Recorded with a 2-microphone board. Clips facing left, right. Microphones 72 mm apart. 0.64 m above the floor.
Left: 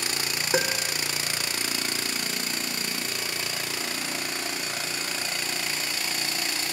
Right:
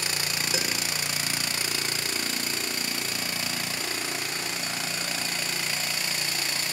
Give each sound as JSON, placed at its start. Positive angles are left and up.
{"t": 0.5, "sound": "a piano", "side_deg": 45}